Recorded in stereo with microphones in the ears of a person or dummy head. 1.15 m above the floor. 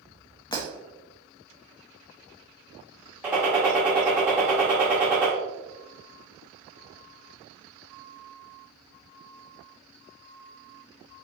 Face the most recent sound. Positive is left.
turn(degrees=-5)  # may be behind; listen again after turning